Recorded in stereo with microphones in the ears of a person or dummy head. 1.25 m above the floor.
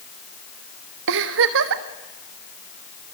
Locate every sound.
1.1 s a giggle: 70° right (ahead or behind), 1.1 m